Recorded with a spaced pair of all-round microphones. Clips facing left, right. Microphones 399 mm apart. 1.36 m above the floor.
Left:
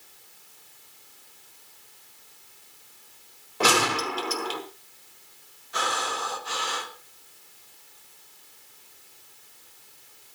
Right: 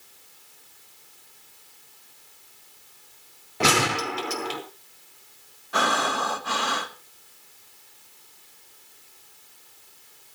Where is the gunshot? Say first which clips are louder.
Right 1 dB; 35° right (ahead or behind), 4 m.